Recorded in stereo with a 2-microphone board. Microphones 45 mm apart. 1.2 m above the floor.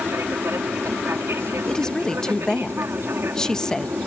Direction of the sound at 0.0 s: 65° right (ahead or behind).